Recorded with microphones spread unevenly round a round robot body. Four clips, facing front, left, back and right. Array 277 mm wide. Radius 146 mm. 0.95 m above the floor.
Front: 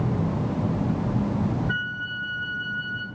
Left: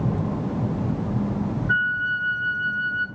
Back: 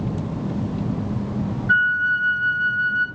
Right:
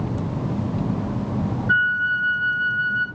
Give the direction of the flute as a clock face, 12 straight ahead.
6 o'clock.